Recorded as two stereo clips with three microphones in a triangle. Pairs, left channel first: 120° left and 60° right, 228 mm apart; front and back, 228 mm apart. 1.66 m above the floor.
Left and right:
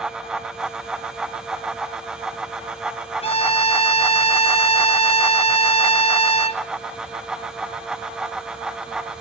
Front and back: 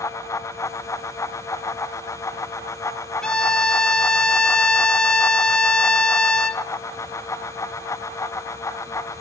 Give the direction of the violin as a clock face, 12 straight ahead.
9 o'clock.